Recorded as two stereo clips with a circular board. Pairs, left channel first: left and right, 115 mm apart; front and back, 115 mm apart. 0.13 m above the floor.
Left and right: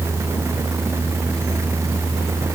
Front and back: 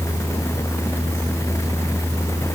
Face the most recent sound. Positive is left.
No sound to turn to.